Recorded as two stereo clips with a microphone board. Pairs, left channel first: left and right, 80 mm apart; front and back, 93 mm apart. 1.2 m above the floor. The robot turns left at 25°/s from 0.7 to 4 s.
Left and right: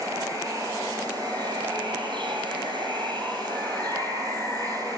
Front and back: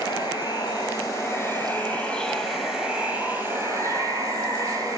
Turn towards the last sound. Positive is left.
turn(degrees=-130)